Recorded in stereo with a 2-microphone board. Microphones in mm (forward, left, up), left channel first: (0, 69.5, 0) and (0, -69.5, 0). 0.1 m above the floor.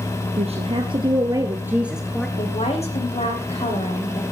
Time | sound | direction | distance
0.4 | a woman speaking | 50° right (ahead or behind) | 2 m
2.4 | a woman speaking | 50° left (ahead or behind) | 6 m